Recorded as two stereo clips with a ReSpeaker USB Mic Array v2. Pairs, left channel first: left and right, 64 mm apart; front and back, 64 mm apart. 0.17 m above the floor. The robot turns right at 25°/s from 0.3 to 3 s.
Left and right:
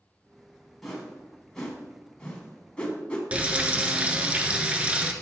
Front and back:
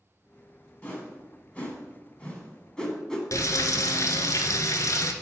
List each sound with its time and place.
0.8 s a whoosh: straight ahead, 1.4 m; by 3.2 s 55° left, 1.4 m
3.3 s frying: 20° right, 0.7 m